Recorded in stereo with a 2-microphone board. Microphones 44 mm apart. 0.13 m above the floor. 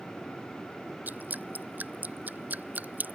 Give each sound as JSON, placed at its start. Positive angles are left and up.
{"t": 1.1, "sound": "dripping", "side_deg": -40}